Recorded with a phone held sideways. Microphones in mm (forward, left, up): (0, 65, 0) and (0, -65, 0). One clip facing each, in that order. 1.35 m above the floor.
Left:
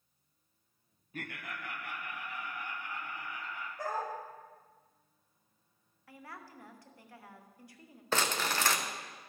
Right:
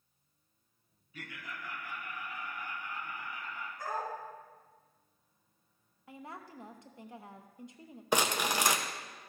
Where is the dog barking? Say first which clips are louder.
Left 1 dB; 70° left (ahead or behind), 2.5 m.